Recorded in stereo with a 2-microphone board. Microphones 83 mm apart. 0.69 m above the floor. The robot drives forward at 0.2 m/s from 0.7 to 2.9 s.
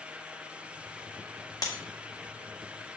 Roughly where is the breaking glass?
Left.